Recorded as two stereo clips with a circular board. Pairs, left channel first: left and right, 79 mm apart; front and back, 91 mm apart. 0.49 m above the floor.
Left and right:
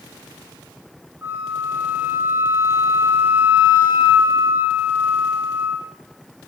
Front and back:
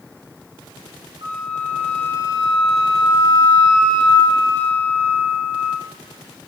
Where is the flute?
150° right, 0.6 m.